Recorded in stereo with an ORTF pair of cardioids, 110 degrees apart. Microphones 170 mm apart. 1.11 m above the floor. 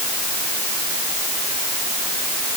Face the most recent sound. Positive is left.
No sound to turn to.